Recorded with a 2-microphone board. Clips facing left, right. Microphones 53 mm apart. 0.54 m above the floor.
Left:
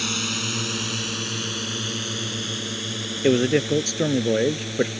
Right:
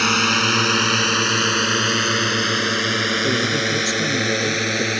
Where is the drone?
60° right (ahead or behind); by 5.0 s 75° right (ahead or behind).